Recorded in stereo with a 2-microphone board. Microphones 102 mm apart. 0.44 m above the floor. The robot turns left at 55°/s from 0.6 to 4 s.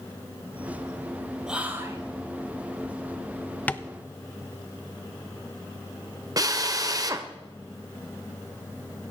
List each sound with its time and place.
1.5 s whispering: 5° right (ahead or behind), 2.5 m; by 2.0 s 30° right (ahead or behind), 2.5 m
3.7 s tapping: 15° left (ahead or behind), 0.5 m; by 3.9 s 25° left (ahead or behind), 0.5 m
6.4 s a drill: 35° right (ahead or behind), 1.1 m